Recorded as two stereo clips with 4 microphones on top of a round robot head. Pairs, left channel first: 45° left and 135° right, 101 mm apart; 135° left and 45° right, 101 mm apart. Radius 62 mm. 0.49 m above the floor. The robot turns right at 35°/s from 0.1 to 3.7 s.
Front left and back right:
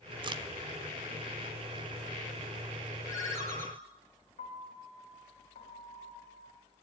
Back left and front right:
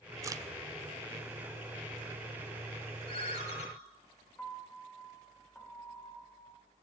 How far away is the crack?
About 0.9 m.